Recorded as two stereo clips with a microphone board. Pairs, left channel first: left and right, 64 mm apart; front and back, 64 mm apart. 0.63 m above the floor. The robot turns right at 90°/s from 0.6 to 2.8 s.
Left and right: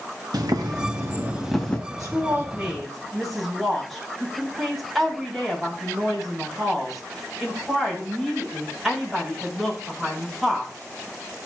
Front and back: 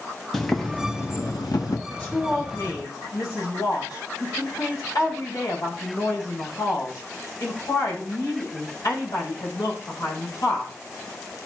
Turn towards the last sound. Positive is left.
turn(degrees=0)